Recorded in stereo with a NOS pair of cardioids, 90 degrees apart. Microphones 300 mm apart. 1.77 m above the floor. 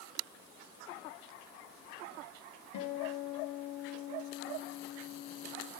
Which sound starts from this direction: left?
A guitar, at 2.7 s.